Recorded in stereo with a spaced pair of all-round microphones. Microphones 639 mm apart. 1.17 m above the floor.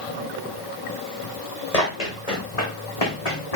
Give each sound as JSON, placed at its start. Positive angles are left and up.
{"t": 1.7, "sound": "running footsteps", "side_deg": 75, "distance_m": 4.0}